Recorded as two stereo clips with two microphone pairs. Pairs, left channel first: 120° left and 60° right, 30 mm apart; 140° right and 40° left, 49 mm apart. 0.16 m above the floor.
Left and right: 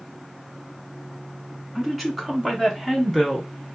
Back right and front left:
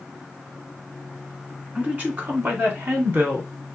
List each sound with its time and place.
1.8 s a woman speaking: 20° left, 1.8 m; by 3.5 s 30° left, 2.5 m